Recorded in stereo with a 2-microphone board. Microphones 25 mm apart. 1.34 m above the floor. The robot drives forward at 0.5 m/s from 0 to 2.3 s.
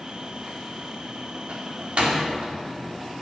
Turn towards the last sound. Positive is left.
turn(degrees=-60)  # may be behind; listen again after turning